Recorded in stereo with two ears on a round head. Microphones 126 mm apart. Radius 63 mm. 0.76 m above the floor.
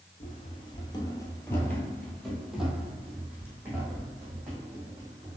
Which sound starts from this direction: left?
Running footsteps, at 0.2 s.